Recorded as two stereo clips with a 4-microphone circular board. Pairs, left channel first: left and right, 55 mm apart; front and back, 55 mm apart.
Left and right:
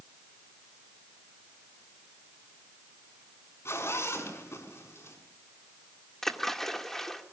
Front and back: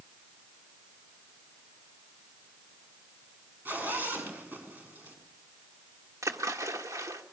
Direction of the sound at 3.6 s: 125° left.